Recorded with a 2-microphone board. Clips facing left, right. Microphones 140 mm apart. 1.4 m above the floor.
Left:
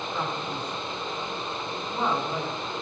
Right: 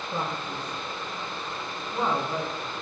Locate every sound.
0.1 s a man speaking: 30° right (ahead or behind), 4 m; by 2.7 s 10° left (ahead or behind), 3.5 m